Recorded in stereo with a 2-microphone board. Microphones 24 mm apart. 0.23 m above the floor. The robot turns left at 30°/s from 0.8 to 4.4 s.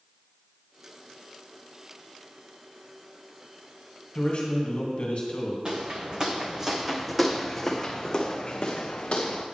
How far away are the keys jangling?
I don't hear keys jangling.